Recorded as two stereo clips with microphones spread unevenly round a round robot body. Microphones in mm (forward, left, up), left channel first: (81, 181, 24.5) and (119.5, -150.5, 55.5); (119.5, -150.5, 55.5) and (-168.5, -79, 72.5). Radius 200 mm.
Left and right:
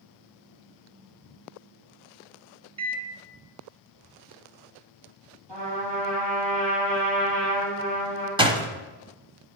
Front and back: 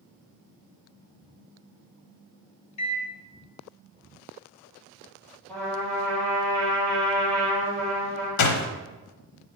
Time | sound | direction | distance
2.8 | a microwave | 5° right | 1.1 m
5.5 | a trumpet | 100° right | 4 m
8.4 | a door slam | 5° right | 0.9 m